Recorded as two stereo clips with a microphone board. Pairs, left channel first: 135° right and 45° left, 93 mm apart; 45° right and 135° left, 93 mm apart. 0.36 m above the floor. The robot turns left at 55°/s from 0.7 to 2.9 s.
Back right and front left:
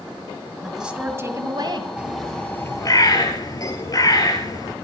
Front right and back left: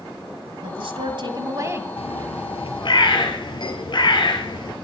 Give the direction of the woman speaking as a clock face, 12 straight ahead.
8 o'clock.